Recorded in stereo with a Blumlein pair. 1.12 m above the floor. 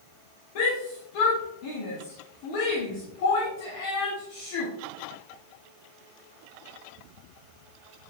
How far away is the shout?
About 1.4 m.